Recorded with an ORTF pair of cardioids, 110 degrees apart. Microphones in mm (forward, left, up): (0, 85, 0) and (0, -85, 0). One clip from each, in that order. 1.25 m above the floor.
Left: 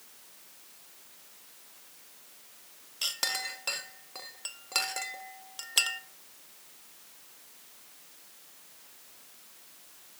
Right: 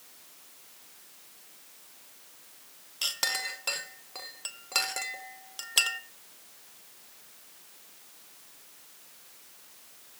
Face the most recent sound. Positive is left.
turn(degrees=-5)